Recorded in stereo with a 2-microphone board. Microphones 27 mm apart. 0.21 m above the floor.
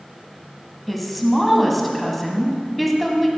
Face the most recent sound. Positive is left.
turn(degrees=5)  # may be behind; listen again after turning